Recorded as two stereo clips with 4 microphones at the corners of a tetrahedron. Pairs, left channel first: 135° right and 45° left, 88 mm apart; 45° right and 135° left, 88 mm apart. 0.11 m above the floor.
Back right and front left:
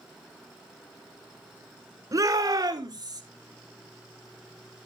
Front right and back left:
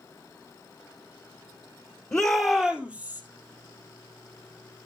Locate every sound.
2.1 s a shout: 35° left, 2 m; by 3.2 s 70° left, 3 m